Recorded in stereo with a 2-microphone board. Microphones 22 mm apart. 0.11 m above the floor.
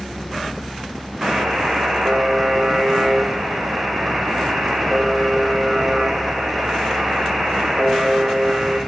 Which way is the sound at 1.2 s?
80° right.